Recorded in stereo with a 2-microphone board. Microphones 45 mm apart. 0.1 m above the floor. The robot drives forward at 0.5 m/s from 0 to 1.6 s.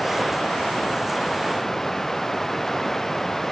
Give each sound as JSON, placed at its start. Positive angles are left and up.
{"t": 0.0, "sound": "running water", "side_deg": 10}